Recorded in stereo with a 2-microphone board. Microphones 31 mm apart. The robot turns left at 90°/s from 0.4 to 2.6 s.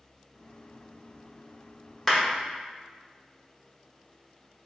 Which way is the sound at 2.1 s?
5° left (ahead or behind).